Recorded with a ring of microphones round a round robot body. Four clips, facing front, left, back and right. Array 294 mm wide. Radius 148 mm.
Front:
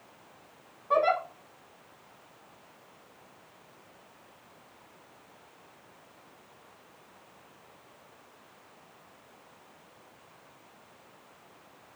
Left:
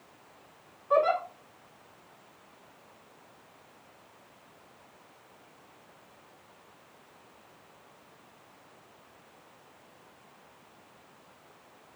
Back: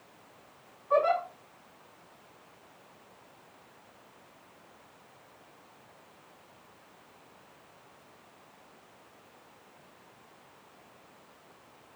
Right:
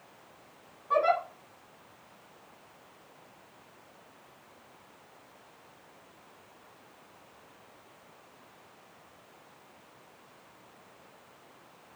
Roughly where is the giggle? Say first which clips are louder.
Left 1 dB, even; ahead.